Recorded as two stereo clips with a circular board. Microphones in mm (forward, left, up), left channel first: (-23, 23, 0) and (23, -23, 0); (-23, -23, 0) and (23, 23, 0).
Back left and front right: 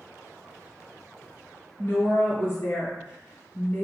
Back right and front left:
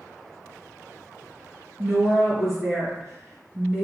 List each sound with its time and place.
1.8 s a woman speaking: 125° left, 1.9 m